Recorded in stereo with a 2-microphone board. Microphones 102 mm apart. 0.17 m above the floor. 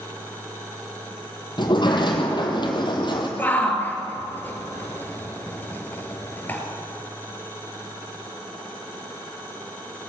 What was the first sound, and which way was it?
A sliding door, 50° left (ahead or behind).